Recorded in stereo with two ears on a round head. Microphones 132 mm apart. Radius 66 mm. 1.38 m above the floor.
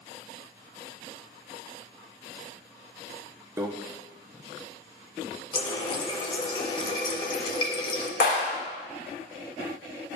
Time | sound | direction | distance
3.6 | a microwave | 20° right (ahead or behind) | 0.7 m
5.5 | a running tap | 35° left (ahead or behind) | 0.9 m
8.2 | a clap | 80° left | 3.5 m